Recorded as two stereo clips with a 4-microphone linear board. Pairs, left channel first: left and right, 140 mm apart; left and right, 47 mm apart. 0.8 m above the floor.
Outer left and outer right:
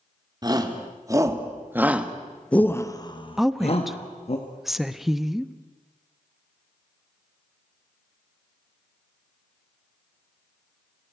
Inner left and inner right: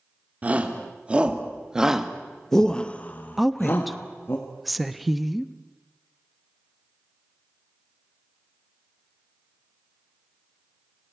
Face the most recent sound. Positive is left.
turn(degrees=0)  # may be behind; listen again after turning